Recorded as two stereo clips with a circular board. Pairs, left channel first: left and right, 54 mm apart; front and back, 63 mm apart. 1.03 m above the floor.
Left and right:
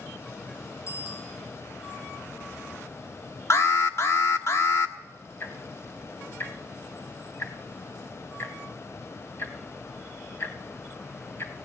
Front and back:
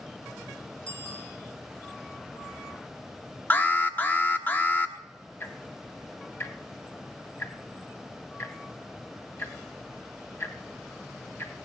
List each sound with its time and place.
0.9 s a bicycle bell: 80° left, 7 m
3.5 s an alarm: 60° left, 1.2 m
5.4 s ticking: 50° left, 1.7 m